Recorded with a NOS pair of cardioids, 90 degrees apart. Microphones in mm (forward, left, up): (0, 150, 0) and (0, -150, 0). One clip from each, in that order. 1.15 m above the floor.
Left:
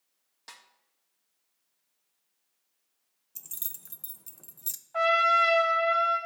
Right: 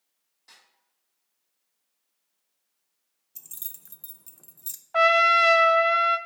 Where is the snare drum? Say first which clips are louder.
Left 5 dB; 70° left, 1.6 m.